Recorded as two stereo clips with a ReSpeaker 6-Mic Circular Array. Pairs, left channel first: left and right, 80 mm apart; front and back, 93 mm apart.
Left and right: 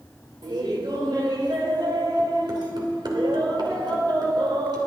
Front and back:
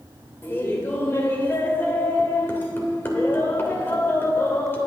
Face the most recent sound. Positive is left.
turn(degrees=-65)